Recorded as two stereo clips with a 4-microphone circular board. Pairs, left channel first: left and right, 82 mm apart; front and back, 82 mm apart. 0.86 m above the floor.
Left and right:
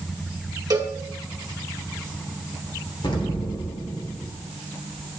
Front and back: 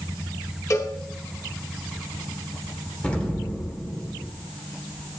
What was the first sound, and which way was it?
A cowbell, 50° right.